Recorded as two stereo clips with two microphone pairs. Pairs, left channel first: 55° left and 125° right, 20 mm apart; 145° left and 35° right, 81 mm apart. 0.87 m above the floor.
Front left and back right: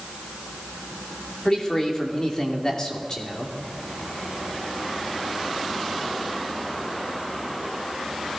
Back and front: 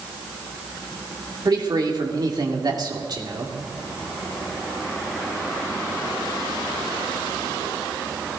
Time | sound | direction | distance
1.4 | a man speaking | straight ahead | 2.5 m